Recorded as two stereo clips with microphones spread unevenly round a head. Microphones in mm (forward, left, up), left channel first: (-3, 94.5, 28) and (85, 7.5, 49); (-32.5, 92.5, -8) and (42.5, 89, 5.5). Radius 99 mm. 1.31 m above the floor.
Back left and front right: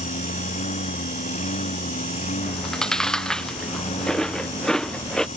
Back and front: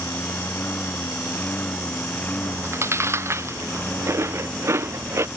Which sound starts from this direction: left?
A lawn mower, at 0.0 s.